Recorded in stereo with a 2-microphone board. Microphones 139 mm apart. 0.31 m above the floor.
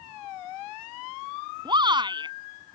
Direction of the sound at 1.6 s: 35° right (ahead or behind).